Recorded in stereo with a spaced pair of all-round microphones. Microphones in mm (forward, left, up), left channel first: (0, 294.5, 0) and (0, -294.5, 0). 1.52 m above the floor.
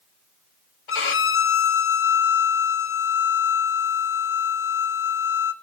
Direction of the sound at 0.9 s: 55° left (ahead or behind).